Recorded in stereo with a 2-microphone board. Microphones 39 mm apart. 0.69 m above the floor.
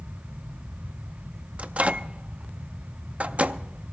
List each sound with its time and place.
1.6 s a microwave: 35° right (ahead or behind), 0.5 m